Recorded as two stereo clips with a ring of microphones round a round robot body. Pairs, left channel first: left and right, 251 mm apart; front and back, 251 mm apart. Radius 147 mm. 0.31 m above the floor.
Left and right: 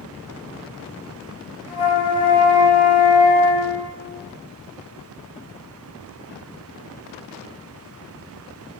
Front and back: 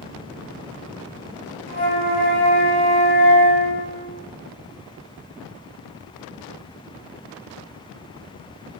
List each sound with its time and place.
1.7 s a flute: 15° left, 4.5 m